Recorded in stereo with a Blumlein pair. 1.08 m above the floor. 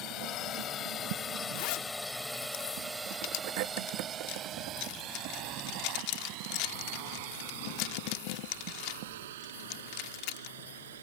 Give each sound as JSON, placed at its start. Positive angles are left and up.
{"t": 0.0, "sound": "a drone", "azimuth_deg": 35}
{"t": 1.6, "sound": "a zipper", "azimuth_deg": 45}